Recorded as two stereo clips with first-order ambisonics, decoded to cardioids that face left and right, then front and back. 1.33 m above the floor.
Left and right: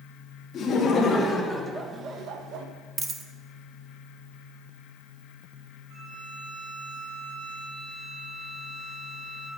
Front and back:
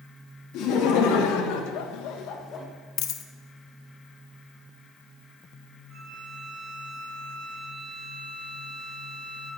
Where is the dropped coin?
20° right, 0.9 m.